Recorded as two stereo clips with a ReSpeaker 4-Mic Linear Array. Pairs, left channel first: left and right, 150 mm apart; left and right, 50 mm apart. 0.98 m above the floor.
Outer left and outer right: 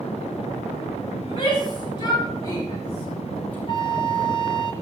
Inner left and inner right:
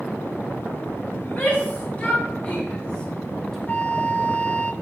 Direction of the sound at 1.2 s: 40° left (ahead or behind).